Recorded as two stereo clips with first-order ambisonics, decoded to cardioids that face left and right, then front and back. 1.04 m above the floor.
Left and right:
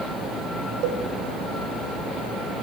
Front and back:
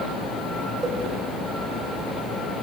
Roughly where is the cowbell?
Right.